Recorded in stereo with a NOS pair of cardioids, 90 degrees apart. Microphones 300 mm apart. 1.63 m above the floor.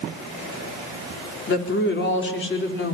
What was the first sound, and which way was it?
A woman speaking, 40° left.